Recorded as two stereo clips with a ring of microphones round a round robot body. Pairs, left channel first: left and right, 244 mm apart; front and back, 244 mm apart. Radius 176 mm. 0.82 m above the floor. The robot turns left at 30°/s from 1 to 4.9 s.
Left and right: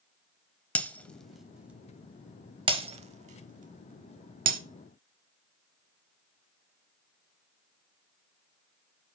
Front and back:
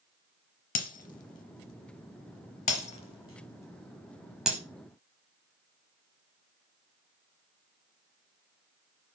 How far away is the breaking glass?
About 0.7 m.